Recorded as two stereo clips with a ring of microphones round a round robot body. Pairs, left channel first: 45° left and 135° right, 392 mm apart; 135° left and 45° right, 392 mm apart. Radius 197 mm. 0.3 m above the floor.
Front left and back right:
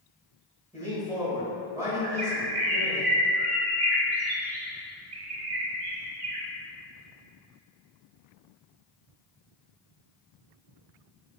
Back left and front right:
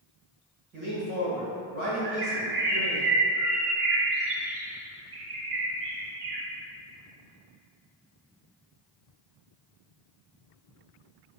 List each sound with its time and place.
0.7 s a man speaking: 60° right, 1.5 m
2.0 s a bird: 105° right, 0.7 m